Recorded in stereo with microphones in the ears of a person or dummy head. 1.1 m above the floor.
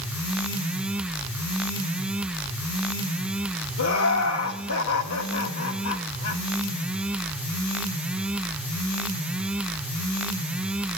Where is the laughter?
75° left (ahead or behind), 1.3 m.